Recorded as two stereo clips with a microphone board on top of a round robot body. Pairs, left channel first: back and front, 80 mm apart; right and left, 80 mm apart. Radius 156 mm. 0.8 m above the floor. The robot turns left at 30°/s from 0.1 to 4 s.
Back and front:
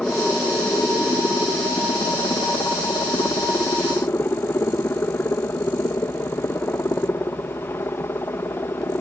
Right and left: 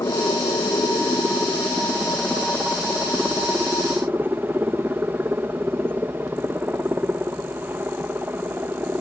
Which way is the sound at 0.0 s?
105° right.